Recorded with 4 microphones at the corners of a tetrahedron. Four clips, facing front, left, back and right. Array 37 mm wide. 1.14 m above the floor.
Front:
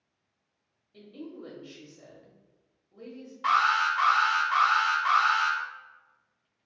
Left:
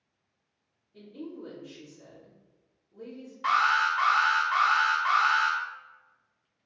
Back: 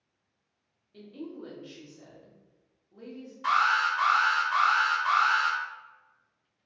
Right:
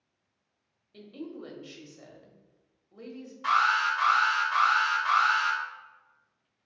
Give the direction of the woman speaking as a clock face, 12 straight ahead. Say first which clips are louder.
Even, back 2 dB; 3 o'clock.